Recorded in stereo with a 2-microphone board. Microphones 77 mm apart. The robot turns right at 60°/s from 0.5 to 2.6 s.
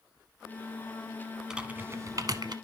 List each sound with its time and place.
1.5 s typing on a keyboard: 10° right (ahead or behind), 0.8 m; by 2.5 s 70° right (ahead or behind), 0.8 m